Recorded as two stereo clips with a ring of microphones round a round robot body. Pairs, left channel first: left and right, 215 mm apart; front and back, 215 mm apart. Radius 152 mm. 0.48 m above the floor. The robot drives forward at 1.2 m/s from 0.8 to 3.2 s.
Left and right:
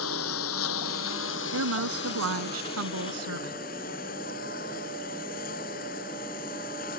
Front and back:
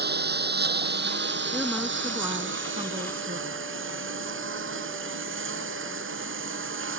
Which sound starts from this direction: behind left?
A lawn mower, at 0.0 s.